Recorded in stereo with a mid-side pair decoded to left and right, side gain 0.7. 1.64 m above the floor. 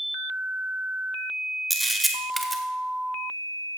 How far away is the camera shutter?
About 1.4 m.